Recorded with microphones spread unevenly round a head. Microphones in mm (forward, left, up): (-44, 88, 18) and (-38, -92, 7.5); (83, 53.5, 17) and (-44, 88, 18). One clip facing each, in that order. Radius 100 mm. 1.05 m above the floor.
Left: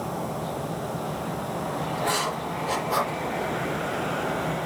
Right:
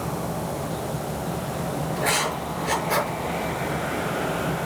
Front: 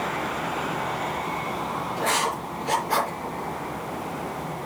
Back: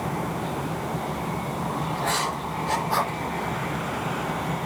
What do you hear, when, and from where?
2.0 s writing: 70° right, 5 m